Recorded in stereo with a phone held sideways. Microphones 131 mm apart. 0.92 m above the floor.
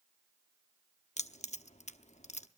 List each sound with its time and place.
1.2 s keys jangling: 65° left (ahead or behind), 0.9 m